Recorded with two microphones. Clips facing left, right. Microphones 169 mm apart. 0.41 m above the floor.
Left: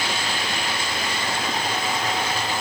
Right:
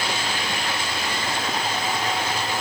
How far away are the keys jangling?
No keys jangling in this recording.